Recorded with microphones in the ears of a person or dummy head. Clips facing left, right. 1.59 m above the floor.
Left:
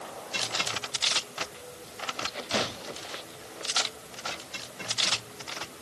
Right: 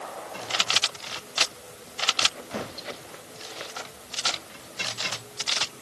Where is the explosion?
I don't hear an explosion.